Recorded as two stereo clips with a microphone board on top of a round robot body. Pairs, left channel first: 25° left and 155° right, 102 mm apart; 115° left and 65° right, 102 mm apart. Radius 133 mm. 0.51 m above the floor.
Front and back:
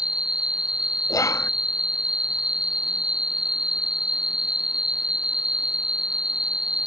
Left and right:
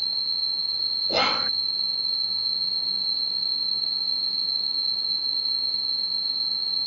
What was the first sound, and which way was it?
An insect, 80° right.